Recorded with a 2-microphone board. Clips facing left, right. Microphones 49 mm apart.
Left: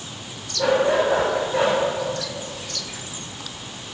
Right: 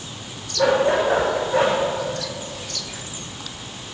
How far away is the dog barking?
About 7.5 m.